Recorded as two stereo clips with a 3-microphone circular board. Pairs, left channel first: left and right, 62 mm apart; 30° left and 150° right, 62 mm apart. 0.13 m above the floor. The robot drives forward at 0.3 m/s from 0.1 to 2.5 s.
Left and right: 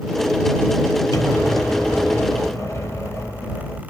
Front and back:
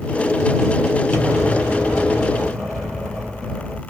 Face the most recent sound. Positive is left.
turn(degrees=115)